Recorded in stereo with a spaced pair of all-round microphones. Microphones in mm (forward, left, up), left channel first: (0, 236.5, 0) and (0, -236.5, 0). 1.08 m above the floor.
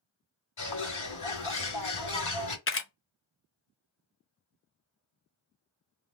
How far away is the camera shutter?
About 0.5 m.